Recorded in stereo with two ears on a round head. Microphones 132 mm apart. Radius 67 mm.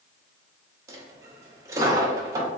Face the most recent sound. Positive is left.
turn(degrees=-20)  # may be behind; listen again after turning